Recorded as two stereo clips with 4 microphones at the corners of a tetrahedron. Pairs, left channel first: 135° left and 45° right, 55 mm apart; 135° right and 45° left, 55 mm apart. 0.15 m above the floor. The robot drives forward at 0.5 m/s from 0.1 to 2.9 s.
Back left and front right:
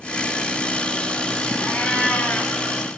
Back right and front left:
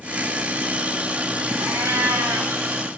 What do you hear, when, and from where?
1.6 s a cat meowing: 75° left, 3 m; by 2.6 s 85° left, 3 m